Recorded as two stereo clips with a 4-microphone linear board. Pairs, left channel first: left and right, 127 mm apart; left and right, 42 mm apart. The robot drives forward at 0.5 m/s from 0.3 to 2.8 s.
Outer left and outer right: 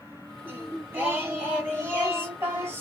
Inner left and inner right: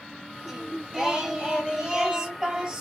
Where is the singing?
15° right (ahead or behind), 1.7 m; by 2.8 s 20° right (ahead or behind), 1.1 m.